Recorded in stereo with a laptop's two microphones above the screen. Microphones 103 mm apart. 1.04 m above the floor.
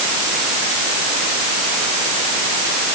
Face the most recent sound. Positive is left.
No sound to turn to.